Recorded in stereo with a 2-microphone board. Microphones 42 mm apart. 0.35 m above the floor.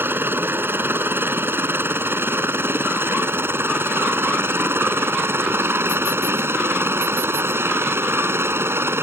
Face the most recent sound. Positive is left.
turn(degrees=-65)  # may be behind; listen again after turning